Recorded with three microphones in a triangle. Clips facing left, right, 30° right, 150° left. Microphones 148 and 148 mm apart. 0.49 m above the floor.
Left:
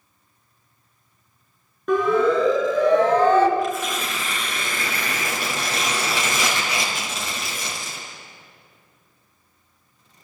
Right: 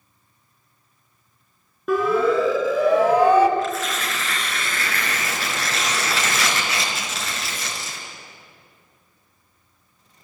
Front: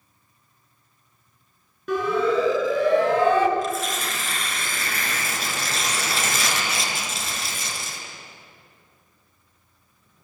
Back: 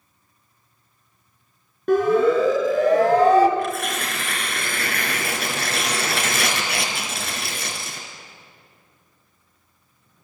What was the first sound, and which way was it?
A siren, 175° right.